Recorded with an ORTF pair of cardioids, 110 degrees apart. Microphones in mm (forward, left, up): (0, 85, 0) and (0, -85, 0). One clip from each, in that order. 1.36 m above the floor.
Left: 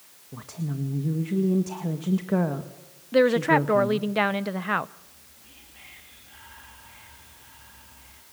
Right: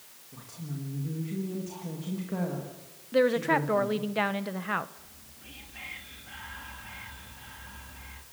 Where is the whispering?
40° right, 2.5 m.